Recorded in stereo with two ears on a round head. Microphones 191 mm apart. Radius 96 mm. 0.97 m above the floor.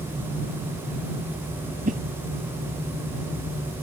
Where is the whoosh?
35° right (ahead or behind).